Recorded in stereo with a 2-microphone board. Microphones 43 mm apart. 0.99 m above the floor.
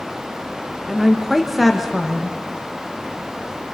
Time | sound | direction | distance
0.9 | a woman speaking | centre (ahead or behind) | 1.1 m